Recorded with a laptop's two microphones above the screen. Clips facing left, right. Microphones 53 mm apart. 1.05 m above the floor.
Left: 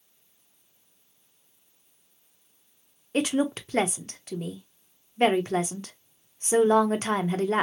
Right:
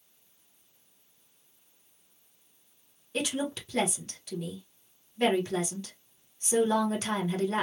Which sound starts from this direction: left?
A woman speaking, at 3.1 s.